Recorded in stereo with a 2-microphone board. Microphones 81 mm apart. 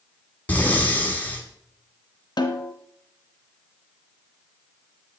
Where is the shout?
I don't hear a shout.